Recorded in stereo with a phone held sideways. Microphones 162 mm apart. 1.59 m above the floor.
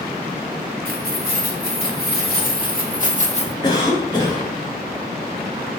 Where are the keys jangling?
70° left (ahead or behind), 3.5 m; by 3.5 s 35° left (ahead or behind), 1.0 m.